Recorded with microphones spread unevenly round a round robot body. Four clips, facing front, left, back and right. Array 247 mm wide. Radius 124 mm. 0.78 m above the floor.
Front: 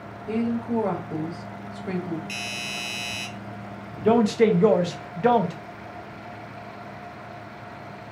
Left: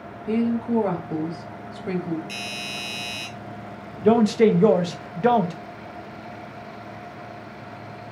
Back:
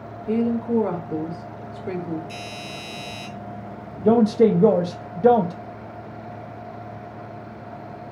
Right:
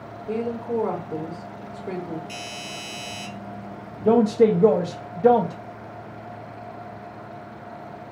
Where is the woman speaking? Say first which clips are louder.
Left 4 dB, back 4 dB; 115° left, 1.4 m.